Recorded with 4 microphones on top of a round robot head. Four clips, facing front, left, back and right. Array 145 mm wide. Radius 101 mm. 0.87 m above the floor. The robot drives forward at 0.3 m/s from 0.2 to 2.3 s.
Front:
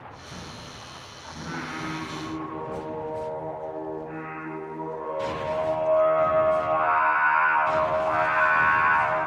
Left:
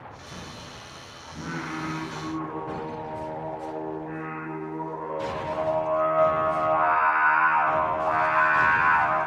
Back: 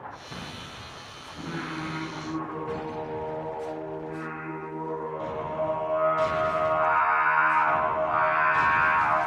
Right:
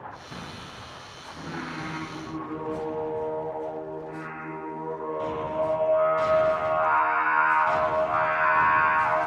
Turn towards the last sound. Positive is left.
turn(degrees=60)